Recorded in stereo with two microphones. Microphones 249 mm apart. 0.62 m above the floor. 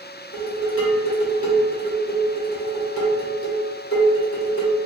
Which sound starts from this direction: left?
Dishes clattering, at 0.3 s.